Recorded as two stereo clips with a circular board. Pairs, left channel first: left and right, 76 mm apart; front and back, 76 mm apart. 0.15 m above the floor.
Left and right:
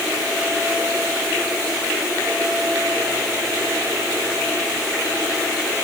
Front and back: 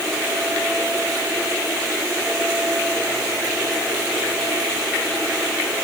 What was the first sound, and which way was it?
Only background noise.